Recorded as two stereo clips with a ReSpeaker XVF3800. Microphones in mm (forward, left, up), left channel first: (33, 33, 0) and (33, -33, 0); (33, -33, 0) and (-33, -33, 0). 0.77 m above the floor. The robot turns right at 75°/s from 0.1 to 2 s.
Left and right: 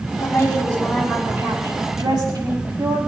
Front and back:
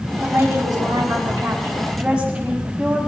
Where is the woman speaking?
120° left, 6.5 m; by 3.0 s 105° right, 6.5 m.